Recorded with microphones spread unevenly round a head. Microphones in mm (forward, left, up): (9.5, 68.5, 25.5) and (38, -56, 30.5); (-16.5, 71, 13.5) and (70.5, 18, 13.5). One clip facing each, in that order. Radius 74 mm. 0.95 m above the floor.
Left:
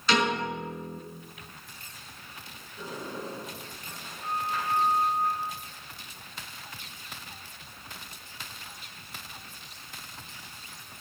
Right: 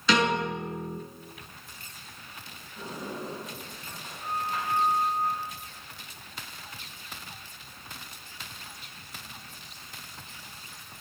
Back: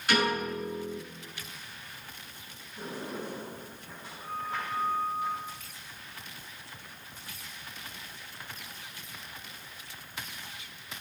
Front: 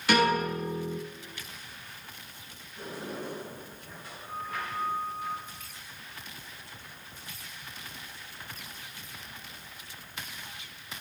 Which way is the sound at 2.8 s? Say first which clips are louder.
Even, even; 135° right.